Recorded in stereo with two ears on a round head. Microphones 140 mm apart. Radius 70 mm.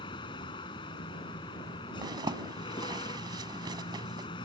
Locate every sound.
0.0 s a vehicle: 30° left (ahead or behind)
2.0 s a zipper: 30° right (ahead or behind)